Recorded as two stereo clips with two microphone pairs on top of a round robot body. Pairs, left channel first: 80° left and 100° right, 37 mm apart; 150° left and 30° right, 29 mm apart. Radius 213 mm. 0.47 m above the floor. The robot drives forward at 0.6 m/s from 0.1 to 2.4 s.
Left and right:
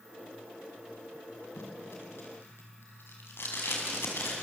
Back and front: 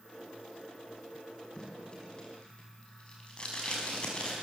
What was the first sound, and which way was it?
Tape being pulled, 90° left.